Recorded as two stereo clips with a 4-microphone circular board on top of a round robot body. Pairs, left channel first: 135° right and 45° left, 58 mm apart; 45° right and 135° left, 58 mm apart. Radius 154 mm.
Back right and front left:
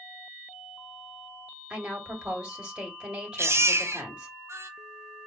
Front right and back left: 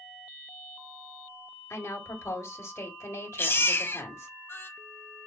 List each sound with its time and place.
1.7 s a woman speaking: 25° right, 1.8 m
3.4 s a baby crying: 5° left, 1.0 m